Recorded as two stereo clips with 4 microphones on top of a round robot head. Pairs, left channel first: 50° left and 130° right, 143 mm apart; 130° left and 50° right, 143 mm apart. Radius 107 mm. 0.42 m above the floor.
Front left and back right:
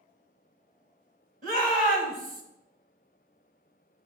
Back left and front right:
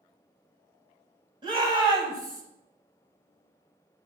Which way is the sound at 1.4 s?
110° right.